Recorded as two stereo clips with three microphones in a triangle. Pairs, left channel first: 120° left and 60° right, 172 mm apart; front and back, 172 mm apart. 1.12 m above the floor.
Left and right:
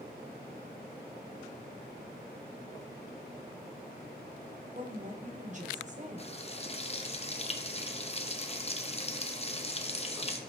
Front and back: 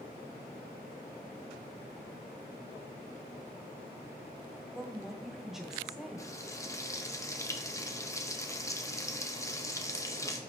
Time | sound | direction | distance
4.8 | a woman speaking | 90° right | 1.2 m
6.2 | frying | 70° left | 0.8 m